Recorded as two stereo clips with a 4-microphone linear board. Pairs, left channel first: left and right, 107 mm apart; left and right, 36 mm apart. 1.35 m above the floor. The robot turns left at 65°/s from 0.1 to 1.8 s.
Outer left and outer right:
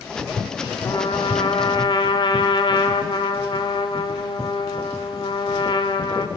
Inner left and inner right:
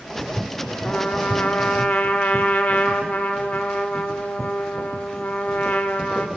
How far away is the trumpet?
About 1.2 m.